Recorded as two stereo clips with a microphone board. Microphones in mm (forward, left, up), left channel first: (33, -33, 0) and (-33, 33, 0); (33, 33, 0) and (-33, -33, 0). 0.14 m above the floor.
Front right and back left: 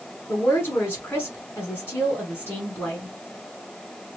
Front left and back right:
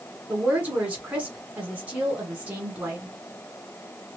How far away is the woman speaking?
About 1.4 m.